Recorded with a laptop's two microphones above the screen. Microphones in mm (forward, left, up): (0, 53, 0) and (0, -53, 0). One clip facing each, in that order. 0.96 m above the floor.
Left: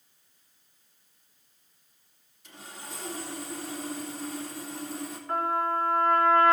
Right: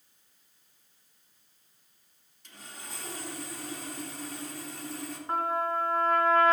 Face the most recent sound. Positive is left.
turn(degrees=-30)  # may be behind; listen again after turning